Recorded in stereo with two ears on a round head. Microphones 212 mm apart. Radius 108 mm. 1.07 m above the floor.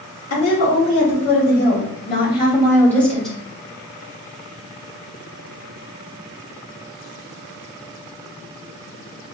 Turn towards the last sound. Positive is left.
turn(degrees=0)  # may be behind; listen again after turning